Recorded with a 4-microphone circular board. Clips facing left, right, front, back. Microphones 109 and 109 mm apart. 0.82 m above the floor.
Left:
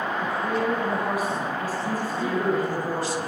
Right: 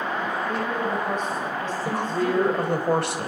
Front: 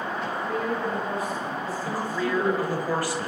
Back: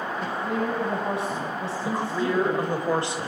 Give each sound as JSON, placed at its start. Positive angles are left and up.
{"t": 0.2, "sound": "a woman speaking", "azimuth_deg": 170, "distance_m": 6.5}
{"t": 1.9, "sound": "a woman speaking", "azimuth_deg": -115, "distance_m": 4.5}